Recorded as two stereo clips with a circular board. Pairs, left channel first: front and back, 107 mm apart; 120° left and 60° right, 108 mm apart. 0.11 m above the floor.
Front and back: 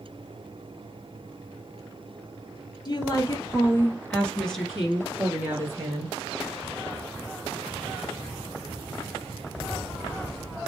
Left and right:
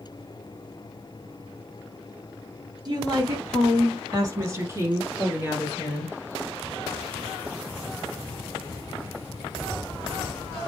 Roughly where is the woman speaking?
Ahead right.